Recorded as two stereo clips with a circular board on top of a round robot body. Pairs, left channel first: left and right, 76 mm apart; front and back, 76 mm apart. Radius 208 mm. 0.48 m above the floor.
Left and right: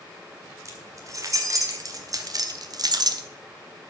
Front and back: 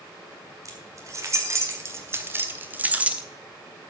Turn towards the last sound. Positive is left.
turn(degrees=-105)